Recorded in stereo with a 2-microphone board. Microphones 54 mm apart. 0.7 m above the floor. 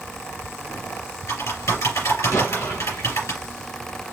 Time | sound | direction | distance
0.7 | typing on a keyboard | 75° left (ahead or behind) | 4 m
2.3 | an explosion | 70° left (ahead or behind) | 2.5 m